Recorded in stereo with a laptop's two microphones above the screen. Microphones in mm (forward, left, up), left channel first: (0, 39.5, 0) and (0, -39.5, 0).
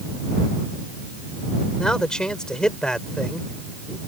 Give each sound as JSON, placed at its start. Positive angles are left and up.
{"t": 1.8, "sound": "a man speaking", "side_deg": 10}